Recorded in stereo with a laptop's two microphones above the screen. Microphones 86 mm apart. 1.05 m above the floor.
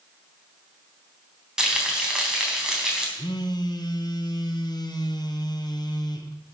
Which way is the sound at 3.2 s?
50° left (ahead or behind).